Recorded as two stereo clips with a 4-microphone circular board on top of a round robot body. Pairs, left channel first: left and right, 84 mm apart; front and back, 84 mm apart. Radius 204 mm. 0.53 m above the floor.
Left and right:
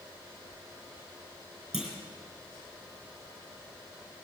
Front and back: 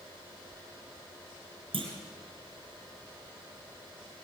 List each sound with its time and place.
1.7 s a clunk: 170° right, 3.5 m